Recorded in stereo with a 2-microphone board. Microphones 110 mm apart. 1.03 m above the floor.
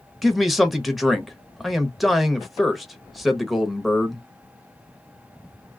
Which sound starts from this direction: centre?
A man speaking, at 0.2 s.